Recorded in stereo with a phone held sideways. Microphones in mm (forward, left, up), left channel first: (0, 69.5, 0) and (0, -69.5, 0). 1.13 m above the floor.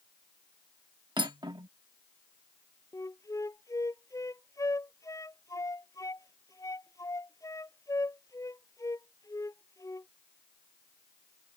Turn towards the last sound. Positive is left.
turn(degrees=25)  # may be behind; listen again after turning